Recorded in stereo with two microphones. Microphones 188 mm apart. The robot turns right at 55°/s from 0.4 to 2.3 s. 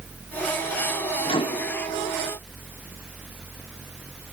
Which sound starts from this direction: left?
A microwave, at 1.2 s.